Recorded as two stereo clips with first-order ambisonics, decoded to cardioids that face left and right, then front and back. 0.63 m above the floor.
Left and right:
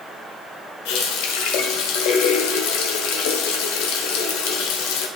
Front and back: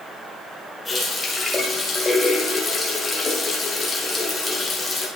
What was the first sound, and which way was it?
A running tap, 85° left.